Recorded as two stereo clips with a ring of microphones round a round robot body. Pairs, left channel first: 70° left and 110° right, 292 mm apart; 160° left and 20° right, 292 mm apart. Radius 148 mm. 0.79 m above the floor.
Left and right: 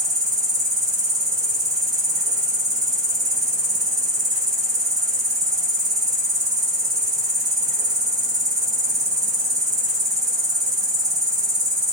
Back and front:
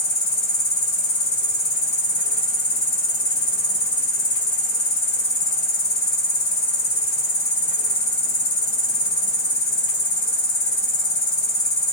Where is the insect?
Straight behind, 1.2 m.